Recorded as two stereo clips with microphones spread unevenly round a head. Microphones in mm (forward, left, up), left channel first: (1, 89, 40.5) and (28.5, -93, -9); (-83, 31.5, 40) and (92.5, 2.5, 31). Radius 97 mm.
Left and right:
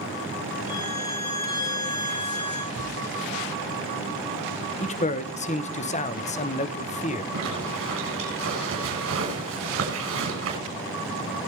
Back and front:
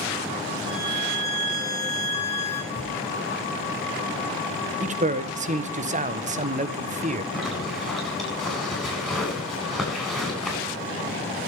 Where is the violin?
60° left, 8 m.